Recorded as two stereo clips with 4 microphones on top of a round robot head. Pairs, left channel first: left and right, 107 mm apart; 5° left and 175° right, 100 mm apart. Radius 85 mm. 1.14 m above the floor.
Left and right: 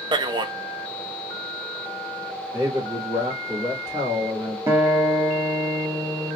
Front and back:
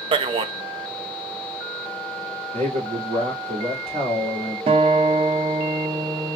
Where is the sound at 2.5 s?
160° right, 2.5 m.